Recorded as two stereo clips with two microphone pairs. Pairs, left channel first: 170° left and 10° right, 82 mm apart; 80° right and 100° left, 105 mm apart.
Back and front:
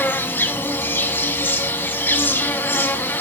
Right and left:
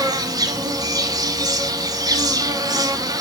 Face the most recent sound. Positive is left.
turn(degrees=120)